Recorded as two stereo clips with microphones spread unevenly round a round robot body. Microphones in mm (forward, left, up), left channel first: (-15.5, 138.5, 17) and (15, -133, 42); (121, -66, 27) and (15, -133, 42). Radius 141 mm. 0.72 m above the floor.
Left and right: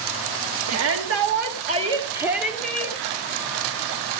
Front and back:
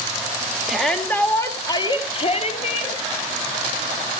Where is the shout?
55° right, 1.5 m; by 3.0 s 15° left, 2 m.